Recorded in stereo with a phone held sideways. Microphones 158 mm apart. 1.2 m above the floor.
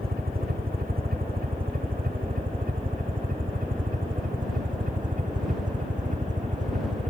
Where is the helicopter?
75° right (ahead or behind); by 7.1 s 50° right (ahead or behind).